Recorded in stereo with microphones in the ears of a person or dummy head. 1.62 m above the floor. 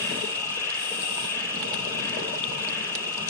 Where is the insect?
15° left (ahead or behind), 2.5 m.